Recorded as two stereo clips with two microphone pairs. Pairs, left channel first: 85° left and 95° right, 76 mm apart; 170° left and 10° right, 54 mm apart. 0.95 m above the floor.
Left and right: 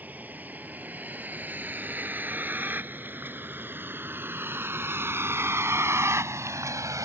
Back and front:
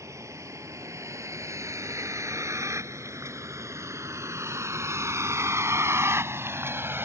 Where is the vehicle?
25° right; by 7.0 s 50° right.